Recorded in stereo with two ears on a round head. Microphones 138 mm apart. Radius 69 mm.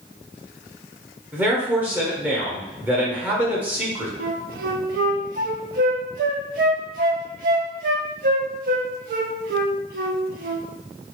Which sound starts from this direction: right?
A flute, at 4.2 s.